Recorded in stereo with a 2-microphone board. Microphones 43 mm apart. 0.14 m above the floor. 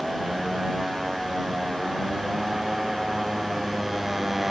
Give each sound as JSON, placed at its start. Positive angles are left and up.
{"t": 0.0, "sound": "a motorcycle", "side_deg": -5}